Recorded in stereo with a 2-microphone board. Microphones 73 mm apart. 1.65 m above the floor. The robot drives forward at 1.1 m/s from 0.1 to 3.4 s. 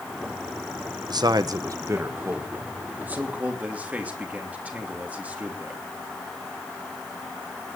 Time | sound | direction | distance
1.1 | a man speaking | 70° right (ahead or behind) | 1.0 m